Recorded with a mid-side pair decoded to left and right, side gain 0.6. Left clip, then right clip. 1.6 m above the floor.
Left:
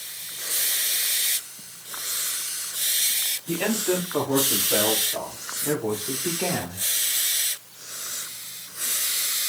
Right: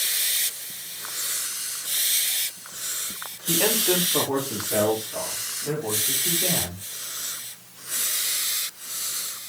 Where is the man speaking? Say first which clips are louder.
Right 5 dB; 10° right, 4.5 m; by 6.8 s 50° left, 4.5 m.